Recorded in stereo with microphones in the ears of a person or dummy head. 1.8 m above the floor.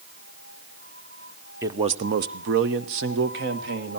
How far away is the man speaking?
About 0.9 m.